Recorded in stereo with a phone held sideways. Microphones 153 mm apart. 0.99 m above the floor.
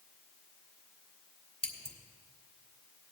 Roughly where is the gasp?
I don't hear a gasp.